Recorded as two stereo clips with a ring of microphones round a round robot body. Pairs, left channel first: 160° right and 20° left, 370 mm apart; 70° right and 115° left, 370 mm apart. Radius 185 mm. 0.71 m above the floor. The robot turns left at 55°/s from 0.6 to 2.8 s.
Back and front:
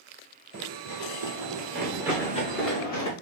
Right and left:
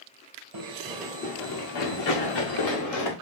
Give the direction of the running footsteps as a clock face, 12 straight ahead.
9 o'clock.